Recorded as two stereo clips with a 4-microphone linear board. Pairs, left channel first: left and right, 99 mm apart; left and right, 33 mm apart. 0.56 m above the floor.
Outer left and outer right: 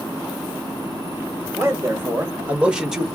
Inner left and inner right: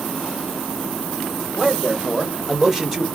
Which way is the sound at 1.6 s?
30° right (ahead or behind).